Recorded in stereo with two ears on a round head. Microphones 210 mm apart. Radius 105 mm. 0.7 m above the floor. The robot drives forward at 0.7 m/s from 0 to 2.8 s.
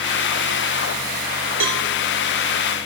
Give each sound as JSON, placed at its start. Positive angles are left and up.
{"t": 1.6, "sound": "a cowbell", "side_deg": -55, "distance_m": 1.1}